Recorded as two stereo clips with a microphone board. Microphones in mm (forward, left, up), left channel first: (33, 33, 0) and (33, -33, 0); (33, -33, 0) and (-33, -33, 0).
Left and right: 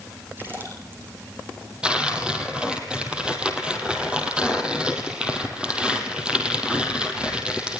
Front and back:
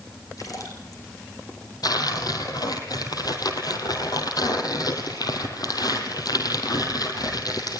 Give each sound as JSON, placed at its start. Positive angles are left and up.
{"t": 0.4, "sound": "a splash", "azimuth_deg": -30, "distance_m": 5.5}
{"t": 1.8, "sound": "tearing paper", "azimuth_deg": -15, "distance_m": 3.0}